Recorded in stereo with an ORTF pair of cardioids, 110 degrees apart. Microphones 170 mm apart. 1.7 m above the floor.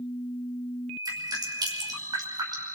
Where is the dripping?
25° right, 5.5 m.